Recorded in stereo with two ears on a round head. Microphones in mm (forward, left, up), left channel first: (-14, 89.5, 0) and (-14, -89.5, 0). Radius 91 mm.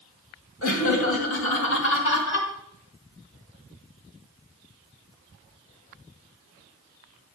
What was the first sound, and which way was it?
Laughter, 70° left (ahead or behind).